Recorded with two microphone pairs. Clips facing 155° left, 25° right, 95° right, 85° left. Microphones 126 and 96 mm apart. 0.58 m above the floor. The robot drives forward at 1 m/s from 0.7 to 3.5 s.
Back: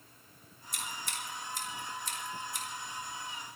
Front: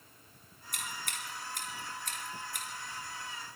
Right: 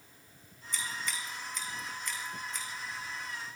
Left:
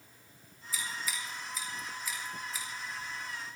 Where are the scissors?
Straight ahead, 6.5 m.